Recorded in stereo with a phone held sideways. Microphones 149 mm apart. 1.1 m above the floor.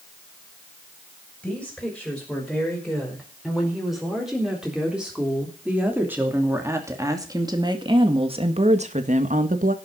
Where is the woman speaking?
5° left (ahead or behind), 6 m; by 9.8 s 65° right (ahead or behind), 1.7 m.